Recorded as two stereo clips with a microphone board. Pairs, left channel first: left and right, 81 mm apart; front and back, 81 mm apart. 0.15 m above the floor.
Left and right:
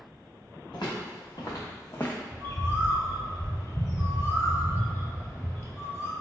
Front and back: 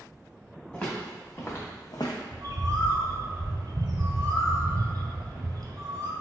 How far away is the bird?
About 0.8 m.